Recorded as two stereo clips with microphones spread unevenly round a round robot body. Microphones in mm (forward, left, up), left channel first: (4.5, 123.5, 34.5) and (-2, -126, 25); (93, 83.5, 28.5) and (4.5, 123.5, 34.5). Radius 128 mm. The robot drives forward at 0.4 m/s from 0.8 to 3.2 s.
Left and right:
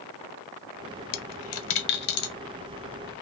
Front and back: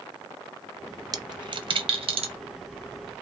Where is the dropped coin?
105° left, 0.5 m; by 2.3 s 145° left, 0.8 m.